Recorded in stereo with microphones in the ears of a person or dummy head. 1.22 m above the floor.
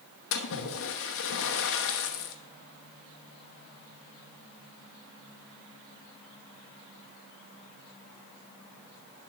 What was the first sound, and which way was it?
A splash, 75° left (ahead or behind).